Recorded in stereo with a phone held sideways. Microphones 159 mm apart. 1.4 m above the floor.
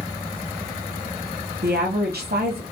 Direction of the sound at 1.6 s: 75° right (ahead or behind).